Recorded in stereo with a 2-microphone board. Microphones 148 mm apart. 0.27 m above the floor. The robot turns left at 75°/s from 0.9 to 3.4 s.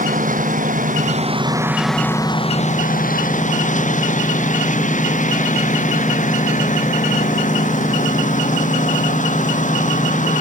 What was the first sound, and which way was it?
A lawn mower, 105° right.